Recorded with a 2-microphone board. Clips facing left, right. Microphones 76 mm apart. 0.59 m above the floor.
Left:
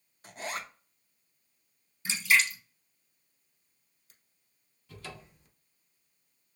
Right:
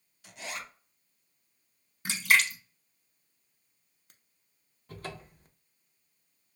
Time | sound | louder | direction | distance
0.2 | a zipper | left 3 dB | 40° left (ahead or behind) | 0.6 m
2.0 | a splash | right 1 dB | 60° right (ahead or behind) | 0.8 m
4.9 | a cupboard door | right 4 dB | 45° right (ahead or behind) | 0.6 m